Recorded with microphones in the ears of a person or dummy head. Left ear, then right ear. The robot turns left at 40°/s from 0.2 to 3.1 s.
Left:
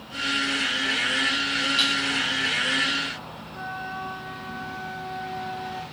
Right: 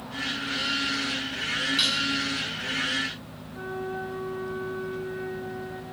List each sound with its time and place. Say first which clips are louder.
1.8 s dishes clattering: even; 15° left (ahead or behind), 6 m; by 2.0 s 25° left (ahead or behind), 6 m
3.5 s a flute: even; 25° left (ahead or behind), 6.5 m